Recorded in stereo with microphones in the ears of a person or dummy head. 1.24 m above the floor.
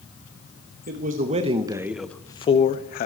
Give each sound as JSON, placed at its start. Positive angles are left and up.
{"t": 0.9, "sound": "a man speaking", "side_deg": -50, "distance_m": 1.2}